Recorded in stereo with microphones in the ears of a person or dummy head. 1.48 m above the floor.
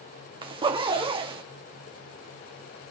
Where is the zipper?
35° right (ahead or behind), 2 m.